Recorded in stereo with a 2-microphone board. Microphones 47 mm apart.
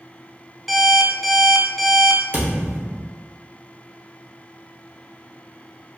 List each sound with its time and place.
0.7 s an alarm clock: centre (ahead or behind), 0.7 m
2.3 s a thud: 30° right (ahead or behind), 1.9 m